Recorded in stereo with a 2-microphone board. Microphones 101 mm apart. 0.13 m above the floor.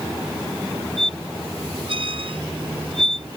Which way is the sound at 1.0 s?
60° right (ahead or behind).